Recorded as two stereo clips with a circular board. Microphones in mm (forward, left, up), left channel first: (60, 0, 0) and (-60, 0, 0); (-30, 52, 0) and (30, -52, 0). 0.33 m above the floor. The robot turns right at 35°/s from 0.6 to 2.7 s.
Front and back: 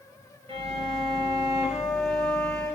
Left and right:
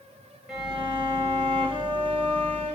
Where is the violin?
150° right, 0.9 m; by 2.8 s 75° right, 0.9 m.